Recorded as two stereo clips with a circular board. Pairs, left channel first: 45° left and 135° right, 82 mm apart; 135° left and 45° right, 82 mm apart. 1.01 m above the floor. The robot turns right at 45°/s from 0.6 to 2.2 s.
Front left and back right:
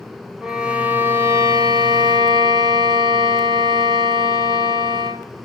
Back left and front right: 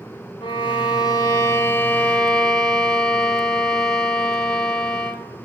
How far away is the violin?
About 2.0 m.